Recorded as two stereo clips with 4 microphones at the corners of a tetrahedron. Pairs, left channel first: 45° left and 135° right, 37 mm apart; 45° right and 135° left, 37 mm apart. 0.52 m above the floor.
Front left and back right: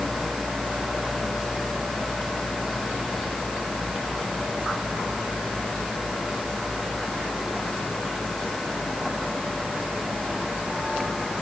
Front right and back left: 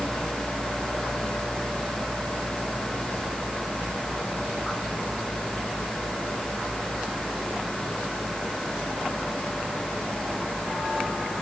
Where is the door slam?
No door slam in this recording.